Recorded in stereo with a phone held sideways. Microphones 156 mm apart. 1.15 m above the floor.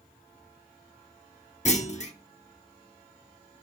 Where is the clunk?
45° left (ahead or behind), 1.0 m.